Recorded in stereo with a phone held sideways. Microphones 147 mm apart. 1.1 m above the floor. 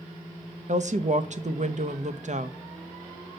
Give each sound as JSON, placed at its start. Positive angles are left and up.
{"t": 0.7, "sound": "a woman speaking", "side_deg": -55, "distance_m": 0.8}